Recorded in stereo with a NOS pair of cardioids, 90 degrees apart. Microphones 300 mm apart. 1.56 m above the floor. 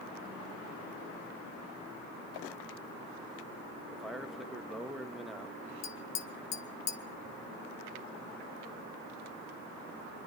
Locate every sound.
3.9 s a man speaking: straight ahead, 2.5 m
5.8 s tapping: 60° left, 1.5 m